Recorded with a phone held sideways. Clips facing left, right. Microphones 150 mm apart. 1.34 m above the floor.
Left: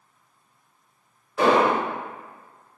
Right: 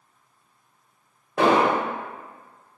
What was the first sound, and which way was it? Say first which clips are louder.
An explosion: even; 75° right (ahead or behind).